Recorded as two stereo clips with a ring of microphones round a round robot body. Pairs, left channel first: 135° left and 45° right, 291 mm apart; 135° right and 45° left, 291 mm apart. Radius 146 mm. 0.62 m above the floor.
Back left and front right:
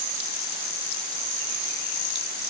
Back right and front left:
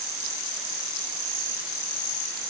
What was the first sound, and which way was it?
Only background noise.